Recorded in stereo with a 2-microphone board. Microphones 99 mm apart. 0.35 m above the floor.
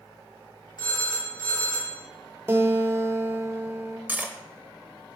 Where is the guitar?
25° right (ahead or behind), 0.6 m.